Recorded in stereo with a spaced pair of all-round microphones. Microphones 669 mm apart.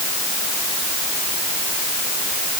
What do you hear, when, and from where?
Only background noise.